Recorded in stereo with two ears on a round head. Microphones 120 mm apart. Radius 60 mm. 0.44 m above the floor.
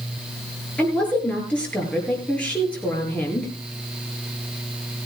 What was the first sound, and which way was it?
A woman speaking, 10° left (ahead or behind).